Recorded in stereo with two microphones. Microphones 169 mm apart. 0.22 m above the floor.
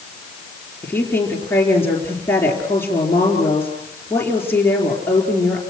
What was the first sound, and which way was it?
A woman speaking, 10° left (ahead or behind).